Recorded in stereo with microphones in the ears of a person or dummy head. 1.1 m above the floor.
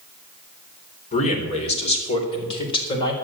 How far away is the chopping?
I don't hear chopping.